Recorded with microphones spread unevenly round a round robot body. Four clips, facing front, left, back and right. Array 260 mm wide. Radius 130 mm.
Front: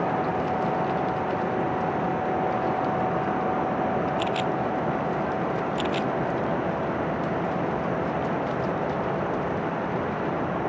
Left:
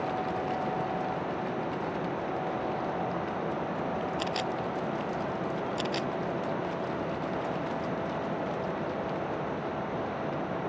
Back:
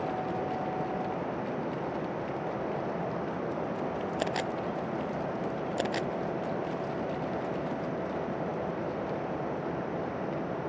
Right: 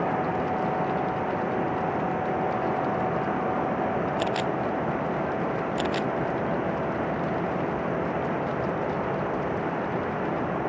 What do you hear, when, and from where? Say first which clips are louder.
4.2 s a camera shutter: right 5 dB, front 6 dB; 135° right